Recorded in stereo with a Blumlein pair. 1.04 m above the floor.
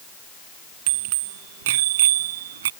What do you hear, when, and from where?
0.9 s a bicycle bell: 50° right; by 2.7 s 60° right